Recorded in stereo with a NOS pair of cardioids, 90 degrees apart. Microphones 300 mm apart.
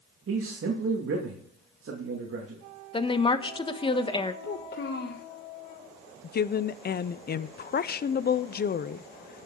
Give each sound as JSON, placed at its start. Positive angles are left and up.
{"t": 0.3, "sound": "a man speaking", "azimuth_deg": -45, "distance_m": 2.5}
{"t": 2.9, "sound": "a woman speaking", "azimuth_deg": 15, "distance_m": 1.2}
{"t": 4.4, "sound": "a child speaking", "azimuth_deg": 35, "distance_m": 1.1}
{"t": 6.2, "sound": "a woman speaking", "azimuth_deg": 35, "distance_m": 0.7}